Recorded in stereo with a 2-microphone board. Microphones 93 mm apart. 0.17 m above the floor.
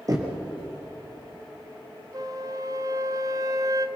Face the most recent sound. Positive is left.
turn(degrees=-40)  # may be behind; listen again after turning